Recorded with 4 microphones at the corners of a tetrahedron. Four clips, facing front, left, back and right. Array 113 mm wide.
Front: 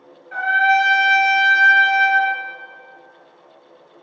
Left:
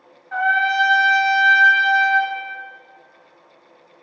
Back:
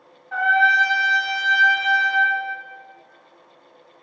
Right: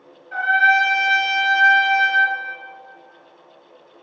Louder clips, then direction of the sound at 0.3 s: Right 2 dB, front 1 dB; 120° left.